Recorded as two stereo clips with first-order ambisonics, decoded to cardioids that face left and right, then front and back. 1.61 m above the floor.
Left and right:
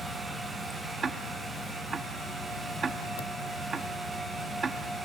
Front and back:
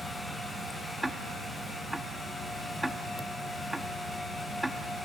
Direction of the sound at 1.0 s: 100° right.